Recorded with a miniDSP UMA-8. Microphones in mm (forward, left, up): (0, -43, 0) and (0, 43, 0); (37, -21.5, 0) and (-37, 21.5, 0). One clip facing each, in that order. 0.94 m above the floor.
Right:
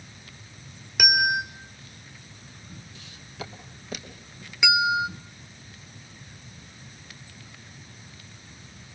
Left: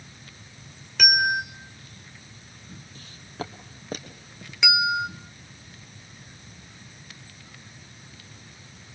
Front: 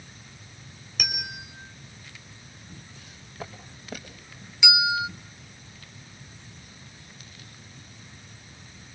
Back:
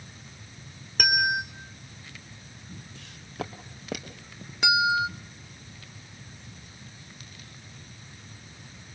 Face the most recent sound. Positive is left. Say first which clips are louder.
# right 2 dB, back 3 dB
turn(degrees=180)